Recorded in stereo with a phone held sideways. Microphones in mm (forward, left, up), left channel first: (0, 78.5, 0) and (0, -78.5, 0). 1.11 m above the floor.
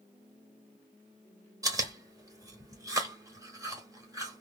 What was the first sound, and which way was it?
Chewing, 20° right (ahead or behind).